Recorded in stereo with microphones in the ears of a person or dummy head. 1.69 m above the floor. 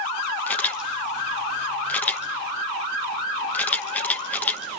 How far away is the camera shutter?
About 0.9 m.